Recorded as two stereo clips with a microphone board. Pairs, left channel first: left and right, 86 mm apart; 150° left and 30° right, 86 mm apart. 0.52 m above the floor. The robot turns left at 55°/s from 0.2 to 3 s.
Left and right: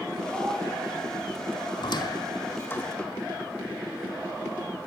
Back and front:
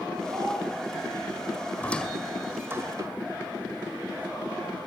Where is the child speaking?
20° left, 7 m; by 0.6 s straight ahead, 7 m.